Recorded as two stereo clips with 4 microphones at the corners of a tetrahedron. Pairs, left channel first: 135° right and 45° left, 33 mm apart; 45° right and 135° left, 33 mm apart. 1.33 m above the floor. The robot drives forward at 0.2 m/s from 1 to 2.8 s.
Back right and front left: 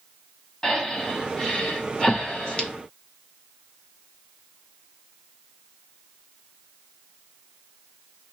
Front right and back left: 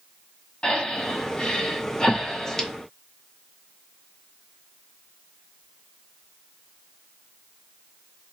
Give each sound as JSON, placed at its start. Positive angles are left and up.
{"t": 0.6, "sound": "breathing", "azimuth_deg": -75, "distance_m": 0.9}